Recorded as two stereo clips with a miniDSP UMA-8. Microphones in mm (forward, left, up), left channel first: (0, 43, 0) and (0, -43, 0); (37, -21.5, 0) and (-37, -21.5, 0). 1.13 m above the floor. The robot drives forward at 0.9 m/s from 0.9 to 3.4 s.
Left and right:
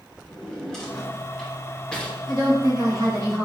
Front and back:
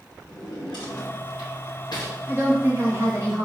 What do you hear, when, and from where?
0.3 s a drawer: 5° left, 2 m; by 2.2 s 15° left, 1.0 m
2.3 s a woman speaking: 115° right, 2 m; by 3.5 s 135° right, 2.5 m